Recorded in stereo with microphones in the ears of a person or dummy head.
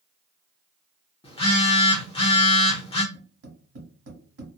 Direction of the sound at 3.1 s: 65° right (ahead or behind).